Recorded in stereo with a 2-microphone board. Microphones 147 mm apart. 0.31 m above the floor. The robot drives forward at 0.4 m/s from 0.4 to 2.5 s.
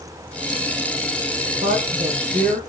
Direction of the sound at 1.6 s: 50° right (ahead or behind).